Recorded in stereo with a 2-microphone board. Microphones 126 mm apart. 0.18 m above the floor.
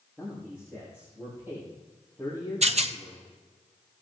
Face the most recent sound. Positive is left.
turn(degrees=-60)  # may be behind; listen again after turning